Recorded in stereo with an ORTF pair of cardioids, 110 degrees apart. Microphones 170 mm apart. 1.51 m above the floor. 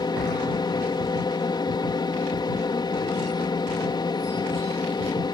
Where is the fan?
25° left.